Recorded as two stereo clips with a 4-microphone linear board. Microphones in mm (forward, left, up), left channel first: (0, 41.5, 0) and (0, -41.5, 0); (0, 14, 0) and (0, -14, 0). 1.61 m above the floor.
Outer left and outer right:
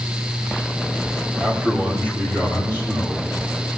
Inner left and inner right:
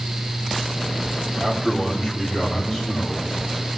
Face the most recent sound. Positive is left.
turn(degrees=-20)  # may be behind; listen again after turning